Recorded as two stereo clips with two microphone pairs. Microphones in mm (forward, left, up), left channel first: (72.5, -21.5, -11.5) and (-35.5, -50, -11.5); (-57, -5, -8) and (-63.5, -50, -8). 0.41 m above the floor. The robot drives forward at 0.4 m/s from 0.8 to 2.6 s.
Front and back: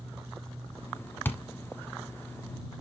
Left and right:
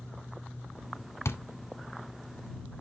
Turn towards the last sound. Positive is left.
turn(degrees=115)